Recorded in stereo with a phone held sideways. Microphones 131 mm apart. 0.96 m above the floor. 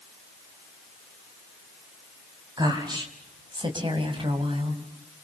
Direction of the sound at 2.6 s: 30° right (ahead or behind).